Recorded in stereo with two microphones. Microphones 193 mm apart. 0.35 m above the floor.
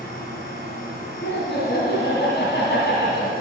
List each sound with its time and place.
0.0 s an insect: 60° right (ahead or behind), 3 m
1.2 s laughter: 70° left (ahead or behind), 2.5 m